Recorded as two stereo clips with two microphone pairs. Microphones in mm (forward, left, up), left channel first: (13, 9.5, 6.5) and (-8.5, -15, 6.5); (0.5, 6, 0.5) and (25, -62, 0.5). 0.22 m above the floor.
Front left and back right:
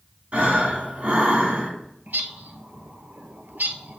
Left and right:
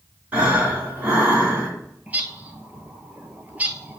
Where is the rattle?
No rattle in this recording.